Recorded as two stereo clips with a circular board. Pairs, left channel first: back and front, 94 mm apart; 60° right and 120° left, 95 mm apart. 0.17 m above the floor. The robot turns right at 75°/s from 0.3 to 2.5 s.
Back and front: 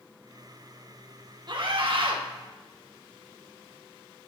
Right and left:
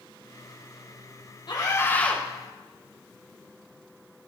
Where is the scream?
30° right, 4.5 m; by 2.2 s 25° left, 4.5 m.